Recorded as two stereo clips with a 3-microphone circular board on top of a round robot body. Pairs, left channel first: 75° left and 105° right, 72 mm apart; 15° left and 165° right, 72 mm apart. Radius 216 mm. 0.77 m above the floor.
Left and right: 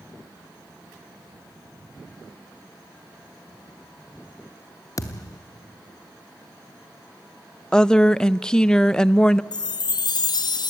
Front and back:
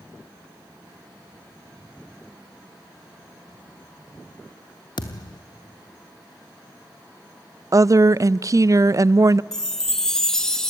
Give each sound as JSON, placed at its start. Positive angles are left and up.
{"t": 5.0, "sound": "a thud", "azimuth_deg": 30, "distance_m": 0.7}
{"t": 7.7, "sound": "a woman speaking", "azimuth_deg": 155, "distance_m": 0.5}
{"t": 9.5, "sound": "a chime", "azimuth_deg": 100, "distance_m": 0.9}